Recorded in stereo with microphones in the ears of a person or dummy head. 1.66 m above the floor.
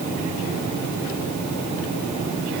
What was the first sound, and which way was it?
Only background noise.